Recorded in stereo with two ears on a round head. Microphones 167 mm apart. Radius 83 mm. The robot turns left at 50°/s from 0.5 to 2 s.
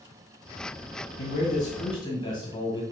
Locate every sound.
1.2 s a man speaking: 70° left, 2.5 m; by 2.8 s 25° left, 2.5 m